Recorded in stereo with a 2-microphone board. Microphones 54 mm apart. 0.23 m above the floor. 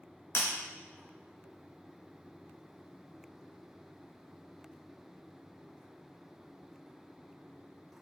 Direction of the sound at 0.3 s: 55° left (ahead or behind).